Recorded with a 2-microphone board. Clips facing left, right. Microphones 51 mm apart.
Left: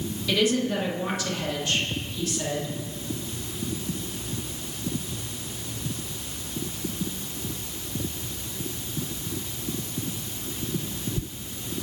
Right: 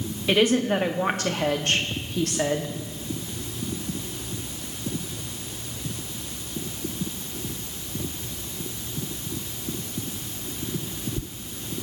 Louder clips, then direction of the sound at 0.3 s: Right 3 dB; 35° right (ahead or behind).